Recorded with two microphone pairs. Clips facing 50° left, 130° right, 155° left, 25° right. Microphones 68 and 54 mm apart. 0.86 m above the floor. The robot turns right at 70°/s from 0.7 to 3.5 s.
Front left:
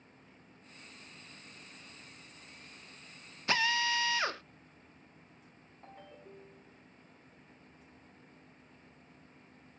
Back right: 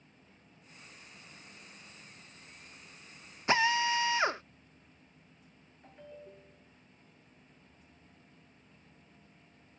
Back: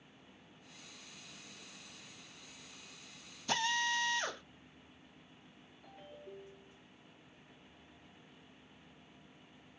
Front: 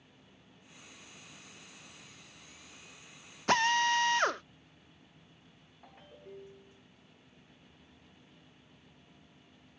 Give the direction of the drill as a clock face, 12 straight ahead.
2 o'clock.